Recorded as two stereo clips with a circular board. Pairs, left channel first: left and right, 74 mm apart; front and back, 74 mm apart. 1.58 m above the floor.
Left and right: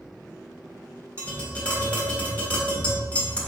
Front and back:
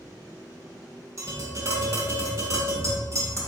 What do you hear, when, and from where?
1.2 s tapping: 160° left, 1.3 m